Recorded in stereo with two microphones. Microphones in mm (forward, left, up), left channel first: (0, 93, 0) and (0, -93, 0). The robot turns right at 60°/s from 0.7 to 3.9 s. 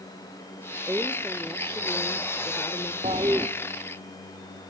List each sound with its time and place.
0.9 s a woman speaking: 15° right (ahead or behind), 1.0 m; by 2.9 s 20° left (ahead or behind), 1.0 m
3.0 s a toilet flushing: 35° right (ahead or behind), 1.3 m; by 3.5 s 10° right (ahead or behind), 1.3 m